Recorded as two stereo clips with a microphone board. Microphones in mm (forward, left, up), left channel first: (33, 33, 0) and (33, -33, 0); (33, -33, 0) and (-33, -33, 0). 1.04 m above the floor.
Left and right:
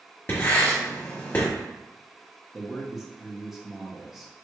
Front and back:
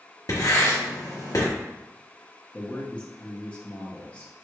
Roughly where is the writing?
Ahead left.